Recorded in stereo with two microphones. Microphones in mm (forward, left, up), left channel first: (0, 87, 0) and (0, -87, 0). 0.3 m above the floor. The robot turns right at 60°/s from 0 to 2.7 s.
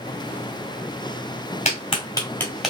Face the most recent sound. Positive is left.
turn(degrees=-5)  # may be behind; listen again after turning